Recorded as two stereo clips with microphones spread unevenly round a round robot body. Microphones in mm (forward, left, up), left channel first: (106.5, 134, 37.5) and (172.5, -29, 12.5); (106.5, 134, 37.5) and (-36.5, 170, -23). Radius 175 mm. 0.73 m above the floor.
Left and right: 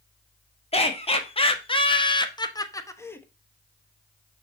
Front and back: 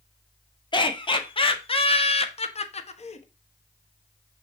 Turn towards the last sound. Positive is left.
turn(degrees=30)